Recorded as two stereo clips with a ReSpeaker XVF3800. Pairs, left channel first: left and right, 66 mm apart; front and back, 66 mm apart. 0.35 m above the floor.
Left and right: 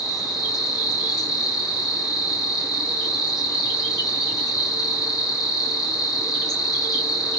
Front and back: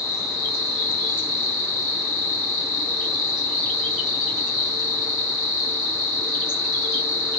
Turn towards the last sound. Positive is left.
turn(degrees=105)